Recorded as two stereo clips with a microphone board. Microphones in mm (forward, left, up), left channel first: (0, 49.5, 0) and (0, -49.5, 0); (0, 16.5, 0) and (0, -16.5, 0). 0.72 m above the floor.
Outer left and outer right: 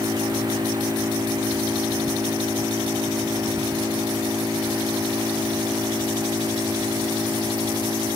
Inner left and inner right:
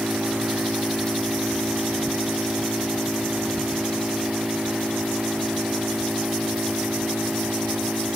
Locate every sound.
0.0 s an engine running: 35° right (ahead or behind)